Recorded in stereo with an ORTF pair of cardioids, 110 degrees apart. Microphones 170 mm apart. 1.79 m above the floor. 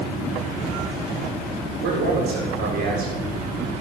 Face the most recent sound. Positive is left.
turn(degrees=-65)